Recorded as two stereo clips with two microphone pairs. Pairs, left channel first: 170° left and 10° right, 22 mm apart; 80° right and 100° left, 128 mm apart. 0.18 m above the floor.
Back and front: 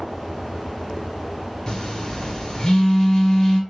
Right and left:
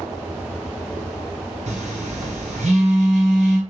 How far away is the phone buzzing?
About 1.5 m.